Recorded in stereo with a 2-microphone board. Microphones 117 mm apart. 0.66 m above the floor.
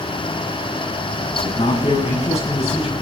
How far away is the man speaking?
About 5.5 m.